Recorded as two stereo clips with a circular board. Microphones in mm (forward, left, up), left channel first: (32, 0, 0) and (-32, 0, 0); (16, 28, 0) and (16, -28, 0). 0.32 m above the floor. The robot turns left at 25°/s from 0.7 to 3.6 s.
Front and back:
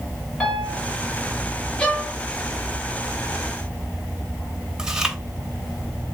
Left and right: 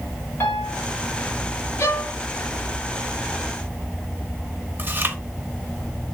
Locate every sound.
0.4 s a piano: 70° left, 1.4 m; by 0.8 s 65° left, 1.4 m
1.8 s a violin: 70° left, 1.1 m; by 2.1 s 65° left, 1.1 m
4.8 s chewing: 105° right, 0.7 m